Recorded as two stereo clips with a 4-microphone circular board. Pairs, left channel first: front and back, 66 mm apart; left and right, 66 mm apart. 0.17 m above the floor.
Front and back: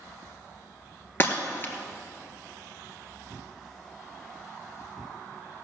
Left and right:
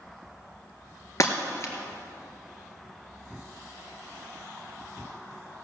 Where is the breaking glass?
55° left, 1.8 m.